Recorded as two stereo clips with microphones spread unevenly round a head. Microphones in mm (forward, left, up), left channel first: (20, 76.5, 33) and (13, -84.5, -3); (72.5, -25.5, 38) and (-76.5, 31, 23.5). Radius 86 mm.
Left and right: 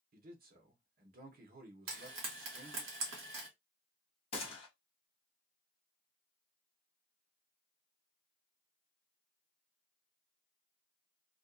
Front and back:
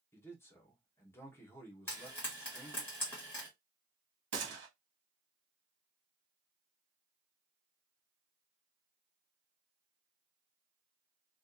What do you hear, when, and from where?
0.1 s a man speaking: 95° right, 0.9 m
1.9 s frying: 90° right, 1.5 m
4.3 s a gunshot: 145° left, 1.1 m